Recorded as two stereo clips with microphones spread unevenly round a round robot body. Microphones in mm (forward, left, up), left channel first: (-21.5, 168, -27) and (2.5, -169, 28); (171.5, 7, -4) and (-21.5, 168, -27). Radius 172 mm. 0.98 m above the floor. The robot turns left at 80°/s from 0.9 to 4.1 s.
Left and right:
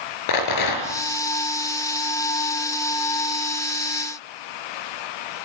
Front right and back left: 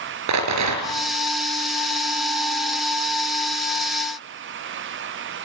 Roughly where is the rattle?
Behind left.